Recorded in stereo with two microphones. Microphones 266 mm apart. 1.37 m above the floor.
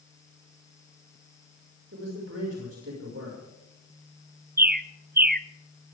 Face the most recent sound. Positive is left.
turn(degrees=-35)  # may be behind; listen again after turning